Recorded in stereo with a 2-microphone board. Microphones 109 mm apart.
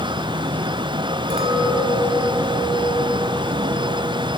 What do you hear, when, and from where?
1.3 s a clink: 85° right, 3 m